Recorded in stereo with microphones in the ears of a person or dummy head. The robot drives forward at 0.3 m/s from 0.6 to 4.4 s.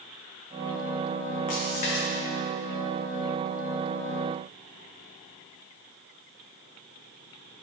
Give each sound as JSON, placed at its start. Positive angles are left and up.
{"t": 1.5, "sound": "a splash", "side_deg": 40, "distance_m": 1.0}